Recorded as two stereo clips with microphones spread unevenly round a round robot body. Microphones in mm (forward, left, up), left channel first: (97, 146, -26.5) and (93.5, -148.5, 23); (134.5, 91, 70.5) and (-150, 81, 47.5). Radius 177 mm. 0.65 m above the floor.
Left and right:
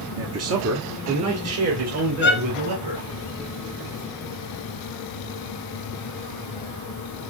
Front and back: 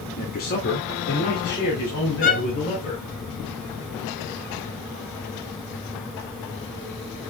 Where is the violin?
60° left, 1.5 m.